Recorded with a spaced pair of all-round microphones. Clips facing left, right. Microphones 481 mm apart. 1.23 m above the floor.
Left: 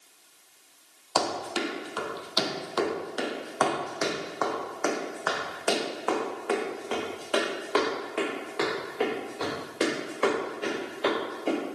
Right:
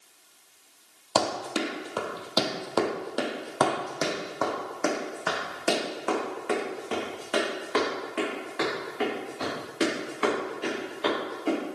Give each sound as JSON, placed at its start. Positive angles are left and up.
{"t": 1.1, "sound": "running footsteps", "side_deg": -55, "distance_m": 2.5}